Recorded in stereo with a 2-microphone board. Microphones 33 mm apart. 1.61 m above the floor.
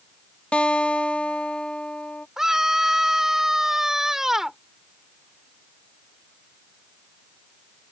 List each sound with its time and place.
0.5 s a guitar: 35° left (ahead or behind)
2.4 s a scream: 15° right (ahead or behind)